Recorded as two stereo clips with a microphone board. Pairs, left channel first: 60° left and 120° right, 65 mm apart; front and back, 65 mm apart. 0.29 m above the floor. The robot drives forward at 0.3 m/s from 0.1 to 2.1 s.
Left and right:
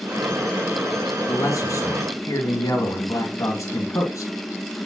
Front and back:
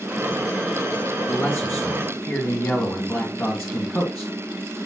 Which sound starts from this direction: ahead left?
A man speaking, at 1.3 s.